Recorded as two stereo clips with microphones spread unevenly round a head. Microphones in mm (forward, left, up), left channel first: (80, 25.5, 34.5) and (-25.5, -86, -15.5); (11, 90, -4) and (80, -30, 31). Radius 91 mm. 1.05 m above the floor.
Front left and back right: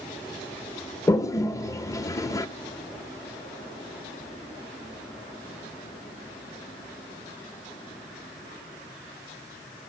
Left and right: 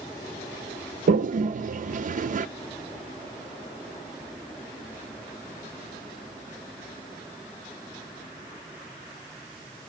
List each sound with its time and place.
1.1 s a toilet flushing: 25° right, 0.7 m